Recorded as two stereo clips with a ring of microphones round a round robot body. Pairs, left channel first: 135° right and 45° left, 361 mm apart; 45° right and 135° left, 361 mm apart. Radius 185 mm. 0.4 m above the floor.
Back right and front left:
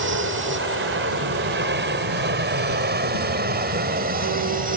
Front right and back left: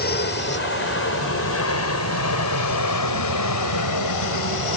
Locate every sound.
0.0 s an aircraft: 5° left; by 4.8 s 20° right